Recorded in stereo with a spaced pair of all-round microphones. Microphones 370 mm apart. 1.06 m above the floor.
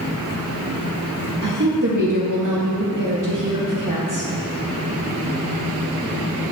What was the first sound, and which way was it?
A woman speaking, 55° right (ahead or behind).